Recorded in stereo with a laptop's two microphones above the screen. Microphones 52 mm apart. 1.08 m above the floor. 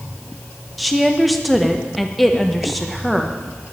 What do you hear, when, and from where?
0.8 s a woman speaking: centre (ahead or behind), 1.0 m